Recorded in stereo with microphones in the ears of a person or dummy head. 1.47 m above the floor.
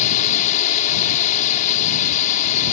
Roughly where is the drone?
Left.